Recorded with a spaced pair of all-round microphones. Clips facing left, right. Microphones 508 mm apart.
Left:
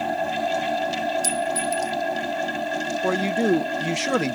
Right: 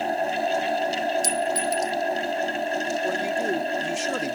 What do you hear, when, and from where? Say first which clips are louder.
0.0 s a fan: even; 25° left (ahead or behind)
1.2 s a clink: even; 35° right (ahead or behind)
3.0 s a man speaking: left 9 dB; 80° left